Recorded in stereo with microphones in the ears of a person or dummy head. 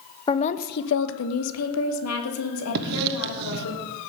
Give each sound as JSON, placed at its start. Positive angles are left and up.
{"t": 0.3, "sound": "a woman speaking", "side_deg": 20, "distance_m": 0.9}
{"t": 2.8, "sound": "writing", "side_deg": -55, "distance_m": 1.3}